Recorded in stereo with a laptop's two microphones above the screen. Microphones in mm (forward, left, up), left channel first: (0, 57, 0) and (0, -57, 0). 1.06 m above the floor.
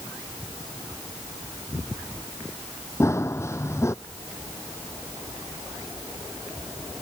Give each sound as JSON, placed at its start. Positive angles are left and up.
{"t": 3.0, "sound": "running footsteps", "side_deg": 25}